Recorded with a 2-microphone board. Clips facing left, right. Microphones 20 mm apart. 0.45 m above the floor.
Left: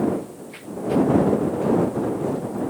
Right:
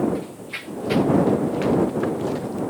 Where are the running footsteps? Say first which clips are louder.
Right 1 dB; 75° right (ahead or behind); by 2.6 s 85° right.